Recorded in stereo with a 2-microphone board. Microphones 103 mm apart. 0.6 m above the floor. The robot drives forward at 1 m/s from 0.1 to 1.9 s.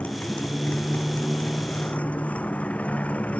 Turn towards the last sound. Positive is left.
turn(degrees=15)  # may be behind; listen again after turning